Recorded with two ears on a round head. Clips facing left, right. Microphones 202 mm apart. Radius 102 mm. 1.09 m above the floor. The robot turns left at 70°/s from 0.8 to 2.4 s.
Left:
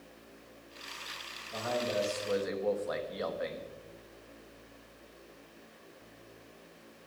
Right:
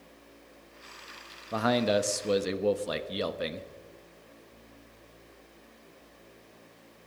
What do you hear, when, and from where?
1.5 s a man speaking: 75° right, 1.1 m; by 3.7 s 135° right, 1.1 m